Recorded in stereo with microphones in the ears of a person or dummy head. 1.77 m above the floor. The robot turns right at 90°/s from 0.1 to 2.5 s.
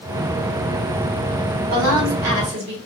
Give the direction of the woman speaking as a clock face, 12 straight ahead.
5 o'clock.